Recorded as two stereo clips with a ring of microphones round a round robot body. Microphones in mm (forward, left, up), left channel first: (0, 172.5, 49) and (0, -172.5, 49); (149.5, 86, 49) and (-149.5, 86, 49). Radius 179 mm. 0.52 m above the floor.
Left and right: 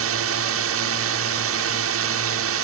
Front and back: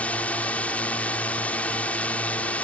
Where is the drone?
85° right.